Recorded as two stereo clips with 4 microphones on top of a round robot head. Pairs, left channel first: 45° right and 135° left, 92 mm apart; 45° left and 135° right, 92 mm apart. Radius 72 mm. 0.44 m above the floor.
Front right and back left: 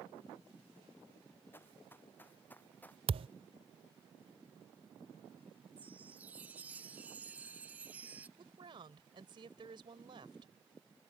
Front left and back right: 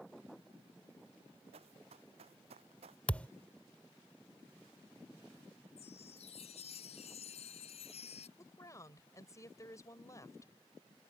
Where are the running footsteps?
115° right; by 3.0 s 120° right.